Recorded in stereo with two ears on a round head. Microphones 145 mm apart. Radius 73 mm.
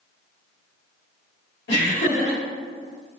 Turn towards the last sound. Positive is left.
turn(degrees=70)  # may be behind; listen again after turning